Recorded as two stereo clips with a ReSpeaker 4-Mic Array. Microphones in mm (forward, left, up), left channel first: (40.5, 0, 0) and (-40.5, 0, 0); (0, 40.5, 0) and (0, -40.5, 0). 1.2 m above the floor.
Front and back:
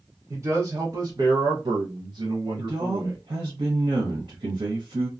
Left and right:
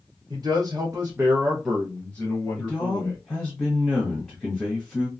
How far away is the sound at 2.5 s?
About 0.9 m.